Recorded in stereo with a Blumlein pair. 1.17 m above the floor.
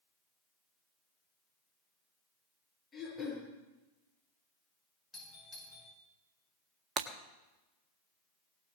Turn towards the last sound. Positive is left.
turn(degrees=-30)